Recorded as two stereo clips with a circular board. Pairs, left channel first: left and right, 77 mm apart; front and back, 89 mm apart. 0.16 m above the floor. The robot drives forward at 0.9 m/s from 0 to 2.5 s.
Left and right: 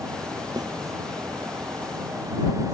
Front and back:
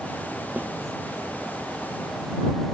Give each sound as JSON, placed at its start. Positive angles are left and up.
{"t": 0.6, "sound": "a snare drum", "azimuth_deg": -105}